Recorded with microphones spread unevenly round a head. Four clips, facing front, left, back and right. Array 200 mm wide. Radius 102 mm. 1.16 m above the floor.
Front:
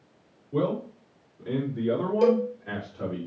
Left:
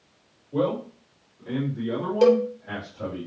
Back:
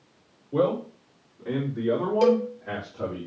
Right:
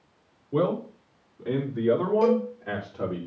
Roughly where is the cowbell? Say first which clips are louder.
Left 8 dB, back 1 dB; left.